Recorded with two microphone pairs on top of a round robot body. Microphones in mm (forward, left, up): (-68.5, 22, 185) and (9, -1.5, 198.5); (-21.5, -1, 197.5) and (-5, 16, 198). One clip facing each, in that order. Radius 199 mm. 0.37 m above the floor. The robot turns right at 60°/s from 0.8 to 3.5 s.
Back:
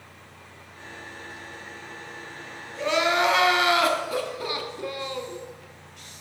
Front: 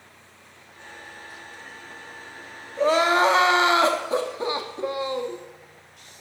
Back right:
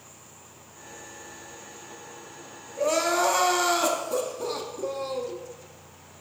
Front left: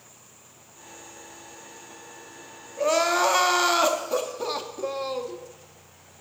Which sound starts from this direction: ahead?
Crying, at 2.8 s.